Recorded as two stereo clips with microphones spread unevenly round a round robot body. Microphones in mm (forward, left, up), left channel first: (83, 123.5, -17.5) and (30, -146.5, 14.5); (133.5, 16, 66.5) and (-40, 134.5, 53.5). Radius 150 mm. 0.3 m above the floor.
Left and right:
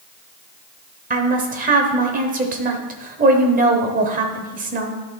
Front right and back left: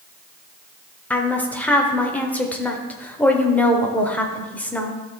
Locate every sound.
1.1 s a woman speaking: 115° right, 0.9 m